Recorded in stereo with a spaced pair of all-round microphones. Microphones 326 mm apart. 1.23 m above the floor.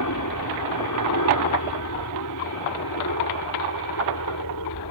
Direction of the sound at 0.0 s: 70° left (ahead or behind).